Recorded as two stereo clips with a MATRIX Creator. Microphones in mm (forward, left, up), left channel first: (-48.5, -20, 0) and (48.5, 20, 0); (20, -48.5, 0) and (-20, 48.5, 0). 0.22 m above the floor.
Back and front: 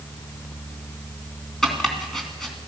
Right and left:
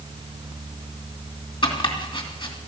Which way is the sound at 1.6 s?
70° right.